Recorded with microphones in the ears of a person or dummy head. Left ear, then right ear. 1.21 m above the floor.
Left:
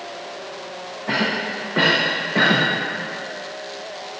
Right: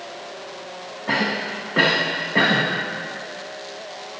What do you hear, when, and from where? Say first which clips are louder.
1.1 s a cough: even; 10° right (ahead or behind), 0.8 m